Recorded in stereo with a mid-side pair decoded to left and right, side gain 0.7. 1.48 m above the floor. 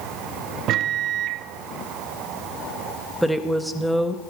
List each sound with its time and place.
0.7 s a microwave: 50° right, 0.7 m
3.2 s a woman speaking: straight ahead, 1.6 m